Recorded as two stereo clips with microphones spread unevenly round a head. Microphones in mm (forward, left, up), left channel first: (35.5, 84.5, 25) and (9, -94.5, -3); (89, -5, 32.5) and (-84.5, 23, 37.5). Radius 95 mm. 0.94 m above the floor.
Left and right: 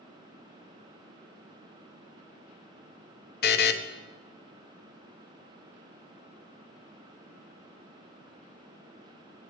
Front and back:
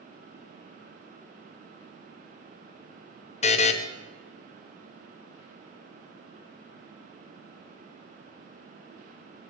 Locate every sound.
3.4 s a buzzer: 45° left, 0.7 m